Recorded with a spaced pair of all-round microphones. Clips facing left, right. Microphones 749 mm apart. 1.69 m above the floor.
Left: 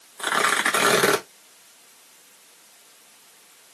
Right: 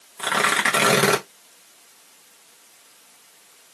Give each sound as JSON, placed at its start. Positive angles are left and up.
{"t": 0.2, "sound": "tearing paper", "side_deg": -50, "distance_m": 1.2}